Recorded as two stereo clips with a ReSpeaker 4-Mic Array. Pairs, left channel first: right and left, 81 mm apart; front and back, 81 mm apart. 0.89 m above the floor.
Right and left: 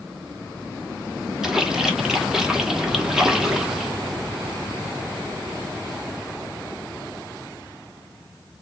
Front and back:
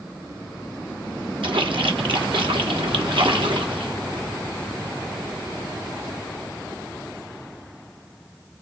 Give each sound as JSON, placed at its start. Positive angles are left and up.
{"t": 1.4, "sound": "a splash", "azimuth_deg": 175, "distance_m": 1.0}